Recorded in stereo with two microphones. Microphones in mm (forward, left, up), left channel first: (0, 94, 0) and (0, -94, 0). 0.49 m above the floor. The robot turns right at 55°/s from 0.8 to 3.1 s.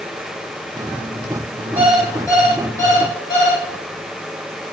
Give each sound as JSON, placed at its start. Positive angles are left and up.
{"t": 1.8, "sound": "an alarm clock", "azimuth_deg": -10, "distance_m": 2.0}